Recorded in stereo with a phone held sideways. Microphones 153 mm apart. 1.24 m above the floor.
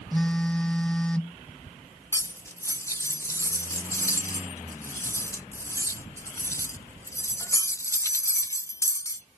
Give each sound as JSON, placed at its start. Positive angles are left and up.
{"t": 0.1, "sound": "a phone buzzing", "side_deg": 5}
{"t": 2.1, "sound": "cutlery clinking", "side_deg": 20}